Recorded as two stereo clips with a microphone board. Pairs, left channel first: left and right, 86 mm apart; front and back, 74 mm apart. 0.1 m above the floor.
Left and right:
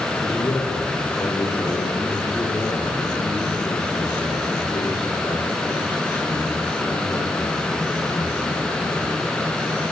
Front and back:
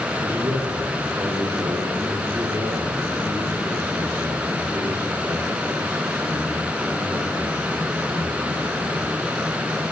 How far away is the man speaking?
About 8 m.